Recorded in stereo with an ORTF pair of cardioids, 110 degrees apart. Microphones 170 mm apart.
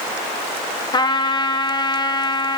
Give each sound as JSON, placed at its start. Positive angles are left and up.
{"t": 0.9, "sound": "a trumpet", "azimuth_deg": 25, "distance_m": 1.0}